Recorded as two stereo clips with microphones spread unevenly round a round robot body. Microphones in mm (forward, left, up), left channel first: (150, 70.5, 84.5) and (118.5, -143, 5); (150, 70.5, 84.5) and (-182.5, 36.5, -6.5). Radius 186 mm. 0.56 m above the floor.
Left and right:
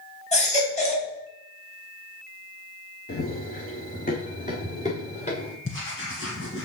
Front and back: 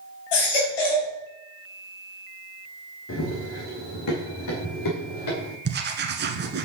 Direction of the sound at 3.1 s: 50° left.